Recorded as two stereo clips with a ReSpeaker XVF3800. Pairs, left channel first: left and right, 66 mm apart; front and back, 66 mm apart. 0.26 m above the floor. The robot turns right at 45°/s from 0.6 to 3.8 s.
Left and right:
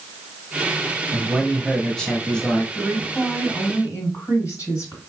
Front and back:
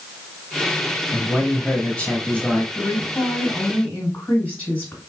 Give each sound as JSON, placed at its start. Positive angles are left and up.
{"t": 1.1, "sound": "a man speaking", "azimuth_deg": -10, "distance_m": 1.0}
{"t": 2.8, "sound": "a woman speaking", "azimuth_deg": 10, "distance_m": 2.0}